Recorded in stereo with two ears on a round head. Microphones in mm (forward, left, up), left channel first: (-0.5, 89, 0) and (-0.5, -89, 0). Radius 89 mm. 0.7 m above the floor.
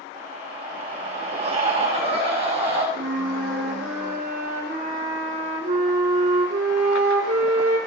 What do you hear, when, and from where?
0.1 s a scream: 30° right (ahead or behind), 5 m
3.0 s a flute: 45° right (ahead or behind), 3 m